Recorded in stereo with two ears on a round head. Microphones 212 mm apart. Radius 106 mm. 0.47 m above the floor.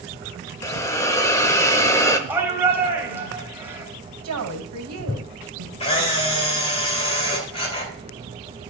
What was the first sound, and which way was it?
A hiss, 10° left (ahead or behind).